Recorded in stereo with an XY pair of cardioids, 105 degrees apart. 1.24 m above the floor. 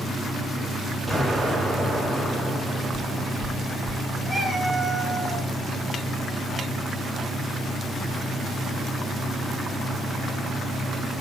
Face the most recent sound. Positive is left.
turn(degrees=5)